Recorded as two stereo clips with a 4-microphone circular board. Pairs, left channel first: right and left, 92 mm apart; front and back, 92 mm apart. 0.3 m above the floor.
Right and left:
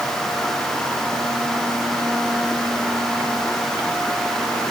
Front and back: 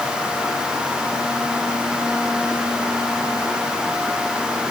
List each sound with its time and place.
Only background noise.